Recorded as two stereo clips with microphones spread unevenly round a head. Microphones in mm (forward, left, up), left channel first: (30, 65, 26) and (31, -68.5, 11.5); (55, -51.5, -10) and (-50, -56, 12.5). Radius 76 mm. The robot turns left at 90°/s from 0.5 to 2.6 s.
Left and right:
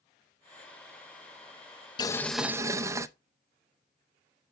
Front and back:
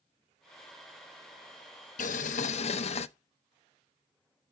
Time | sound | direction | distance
2.0 | boiling | 35° left | 0.6 m